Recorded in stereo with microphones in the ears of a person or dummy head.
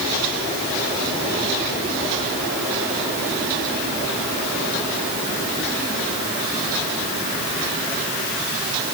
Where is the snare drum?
I don't hear a snare drum.